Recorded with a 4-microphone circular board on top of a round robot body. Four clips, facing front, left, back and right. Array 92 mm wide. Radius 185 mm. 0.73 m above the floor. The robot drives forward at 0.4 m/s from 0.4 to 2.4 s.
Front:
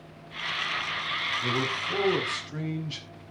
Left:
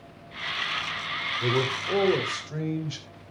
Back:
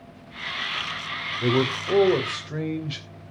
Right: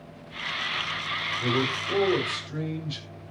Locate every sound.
1.4 s a man speaking: 160° left, 3 m; by 3.1 s 165° left, 3.5 m